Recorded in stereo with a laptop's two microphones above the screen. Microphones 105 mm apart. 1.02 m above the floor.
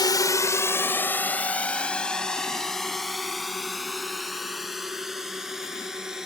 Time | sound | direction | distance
0.0 | a drone | 40° left (ahead or behind) | ?